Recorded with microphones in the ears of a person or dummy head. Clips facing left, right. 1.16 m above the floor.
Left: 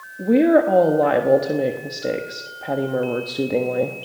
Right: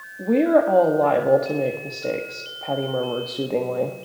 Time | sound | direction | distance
0.2 | a woman speaking | 15° left (ahead or behind) | 1.4 m